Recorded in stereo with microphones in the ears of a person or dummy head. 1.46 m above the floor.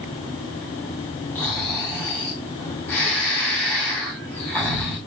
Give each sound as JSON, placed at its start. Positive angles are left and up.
{"t": 1.4, "sound": "snoring", "side_deg": 5, "distance_m": 8.5}